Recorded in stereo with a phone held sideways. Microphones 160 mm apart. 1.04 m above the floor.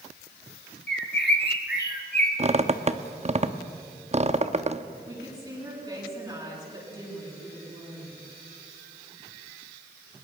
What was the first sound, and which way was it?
A bird, 85° left.